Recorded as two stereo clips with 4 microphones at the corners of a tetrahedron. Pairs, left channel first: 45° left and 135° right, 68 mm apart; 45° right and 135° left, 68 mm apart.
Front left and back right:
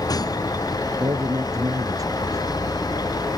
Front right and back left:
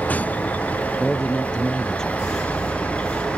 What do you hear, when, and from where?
0.0 s a vehicle: 25° left; by 3.4 s 30° left
1.0 s a man speaking: 125° right